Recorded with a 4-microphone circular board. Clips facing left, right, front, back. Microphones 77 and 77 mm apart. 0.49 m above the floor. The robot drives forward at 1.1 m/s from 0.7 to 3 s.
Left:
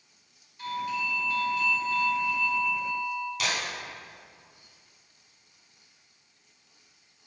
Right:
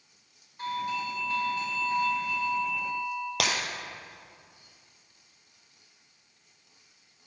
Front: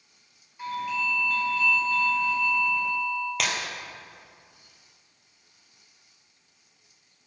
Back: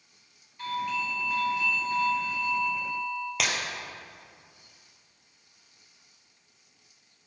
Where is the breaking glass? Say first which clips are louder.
Right 3 dB, back 1 dB; 95° right, 1.3 m.